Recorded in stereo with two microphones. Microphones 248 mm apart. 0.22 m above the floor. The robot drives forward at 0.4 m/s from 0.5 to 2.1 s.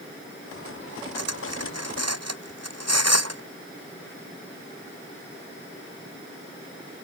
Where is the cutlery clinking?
85° right; by 3.4 s 80° right.